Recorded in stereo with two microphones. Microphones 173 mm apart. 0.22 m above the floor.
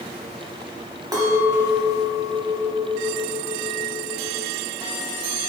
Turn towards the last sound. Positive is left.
turn(degrees=-20)  # may be behind; listen again after turning